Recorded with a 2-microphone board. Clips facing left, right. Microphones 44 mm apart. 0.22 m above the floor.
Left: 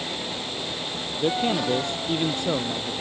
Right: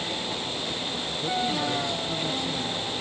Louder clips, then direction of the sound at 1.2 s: Left 4 dB; 45° left (ahead or behind).